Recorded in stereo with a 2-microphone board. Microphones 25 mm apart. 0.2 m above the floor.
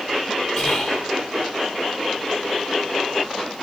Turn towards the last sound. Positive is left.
turn(degrees=15)  # may be behind; listen again after turning